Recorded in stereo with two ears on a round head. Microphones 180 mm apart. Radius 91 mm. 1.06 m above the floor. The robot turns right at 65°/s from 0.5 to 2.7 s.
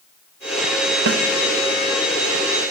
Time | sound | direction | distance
1.1 | a snare drum | 65° right (ahead or behind) | 0.5 m